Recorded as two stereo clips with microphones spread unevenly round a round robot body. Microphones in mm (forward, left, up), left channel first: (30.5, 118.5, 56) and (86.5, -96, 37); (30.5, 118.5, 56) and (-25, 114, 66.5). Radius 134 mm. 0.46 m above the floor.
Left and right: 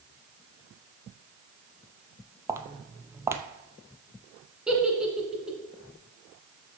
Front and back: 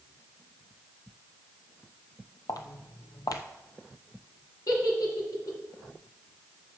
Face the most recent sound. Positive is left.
turn(degrees=10)